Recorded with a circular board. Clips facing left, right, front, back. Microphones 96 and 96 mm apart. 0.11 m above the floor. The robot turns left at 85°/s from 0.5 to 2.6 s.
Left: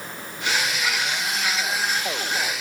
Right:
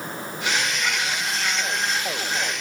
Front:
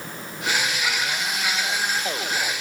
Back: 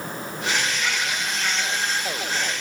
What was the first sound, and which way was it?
Only background noise.